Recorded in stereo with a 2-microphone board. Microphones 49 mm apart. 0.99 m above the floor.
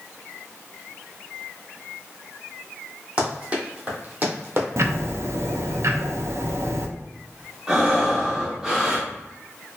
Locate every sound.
3.2 s running footsteps: 20° right (ahead or behind), 1.8 m; by 4.7 s 45° right (ahead or behind), 1.3 m
4.8 s ticking: 65° right (ahead or behind), 0.5 m
7.7 s breathing: 15° right (ahead or behind), 1.0 m